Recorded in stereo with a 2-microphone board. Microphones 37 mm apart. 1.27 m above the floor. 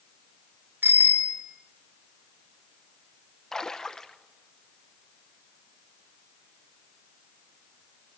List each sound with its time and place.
0.8 s a bicycle bell: 75° right (ahead or behind), 3 m
3.5 s a splash: 15° left (ahead or behind), 0.9 m